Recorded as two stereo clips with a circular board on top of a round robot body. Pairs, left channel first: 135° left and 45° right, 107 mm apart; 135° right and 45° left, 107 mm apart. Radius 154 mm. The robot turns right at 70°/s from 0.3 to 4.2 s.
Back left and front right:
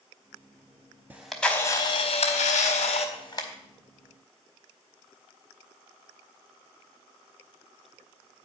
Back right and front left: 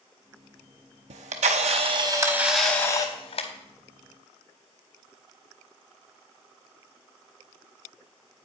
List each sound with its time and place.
1.1 s a camera shutter: 30° left, 0.8 m; by 3.5 s 160° right, 0.8 m